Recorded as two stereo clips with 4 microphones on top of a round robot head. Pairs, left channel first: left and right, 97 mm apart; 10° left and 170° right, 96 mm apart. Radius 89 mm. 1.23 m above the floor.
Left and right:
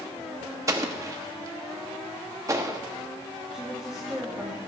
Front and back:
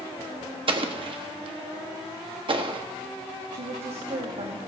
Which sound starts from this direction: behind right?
An explosion, at 0.7 s.